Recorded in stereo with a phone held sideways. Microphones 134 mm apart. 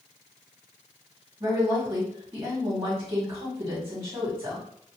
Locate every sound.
1.4 s a woman speaking: 25° right (ahead or behind), 1.3 m